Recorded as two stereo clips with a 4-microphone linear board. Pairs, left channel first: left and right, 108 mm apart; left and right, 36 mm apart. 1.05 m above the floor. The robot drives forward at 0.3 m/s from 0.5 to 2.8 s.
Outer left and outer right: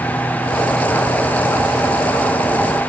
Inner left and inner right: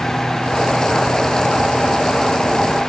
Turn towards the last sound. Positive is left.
No sound to turn to.